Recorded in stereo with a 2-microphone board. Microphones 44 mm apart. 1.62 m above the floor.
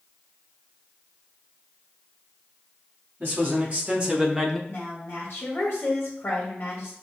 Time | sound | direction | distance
3.2 | a man speaking | 45° right (ahead or behind) | 1.5 m
4.7 | a woman speaking | 60° left (ahead or behind) | 1.6 m